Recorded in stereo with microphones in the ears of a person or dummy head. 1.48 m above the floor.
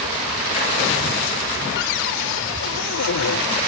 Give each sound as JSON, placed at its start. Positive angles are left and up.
{"t": 1.8, "sound": "a cupboard door", "side_deg": 65}